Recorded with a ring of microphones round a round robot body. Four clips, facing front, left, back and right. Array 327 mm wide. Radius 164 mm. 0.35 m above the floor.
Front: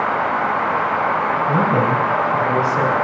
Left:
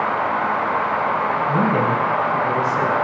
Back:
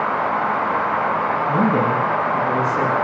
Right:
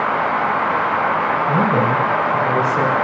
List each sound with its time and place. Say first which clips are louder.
1.5 s a man speaking: right 2 dB, even; 25° right, 3.5 m